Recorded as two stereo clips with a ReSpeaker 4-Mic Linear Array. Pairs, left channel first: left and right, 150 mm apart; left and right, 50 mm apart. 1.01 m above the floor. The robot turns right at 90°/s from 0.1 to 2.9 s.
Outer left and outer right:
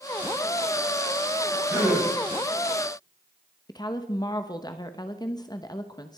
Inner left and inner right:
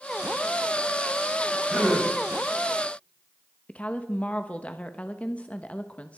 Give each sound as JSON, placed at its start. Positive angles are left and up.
{"t": 1.7, "sound": "a gasp", "azimuth_deg": -25, "distance_m": 7.5}
{"t": 3.7, "sound": "a woman speaking", "side_deg": 30, "distance_m": 1.0}